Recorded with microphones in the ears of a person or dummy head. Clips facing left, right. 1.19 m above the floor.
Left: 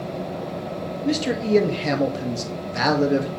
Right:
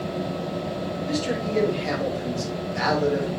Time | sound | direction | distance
1.1 | a man speaking | 60° left (ahead or behind) | 2 m